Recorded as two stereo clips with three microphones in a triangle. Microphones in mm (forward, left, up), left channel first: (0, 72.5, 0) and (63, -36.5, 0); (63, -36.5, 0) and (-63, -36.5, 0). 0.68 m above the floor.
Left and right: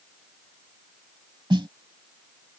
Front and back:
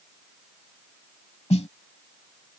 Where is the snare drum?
15° right.